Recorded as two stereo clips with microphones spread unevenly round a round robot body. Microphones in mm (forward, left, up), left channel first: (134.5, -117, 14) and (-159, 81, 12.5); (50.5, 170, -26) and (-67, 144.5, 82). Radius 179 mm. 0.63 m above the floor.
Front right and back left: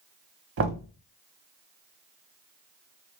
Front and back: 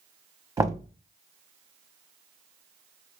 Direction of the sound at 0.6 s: 95° left.